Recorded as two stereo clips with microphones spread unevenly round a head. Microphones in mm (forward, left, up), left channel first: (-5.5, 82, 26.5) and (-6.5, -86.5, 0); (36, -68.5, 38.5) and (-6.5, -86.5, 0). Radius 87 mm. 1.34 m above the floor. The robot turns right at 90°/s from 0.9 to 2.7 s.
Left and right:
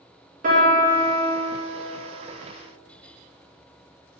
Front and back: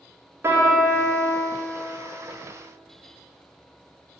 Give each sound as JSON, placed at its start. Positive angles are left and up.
{"t": 0.4, "sound": "a piano", "azimuth_deg": -135, "distance_m": 2.0}